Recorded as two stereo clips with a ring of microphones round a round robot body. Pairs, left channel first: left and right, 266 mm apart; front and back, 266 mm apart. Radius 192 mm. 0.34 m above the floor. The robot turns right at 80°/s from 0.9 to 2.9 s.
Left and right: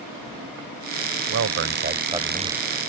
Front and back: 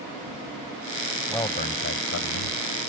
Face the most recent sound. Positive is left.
turn(degrees=45)